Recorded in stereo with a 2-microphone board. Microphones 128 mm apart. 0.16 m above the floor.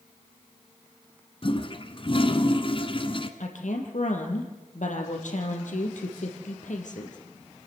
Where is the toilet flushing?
45° left (ahead or behind), 1.3 m.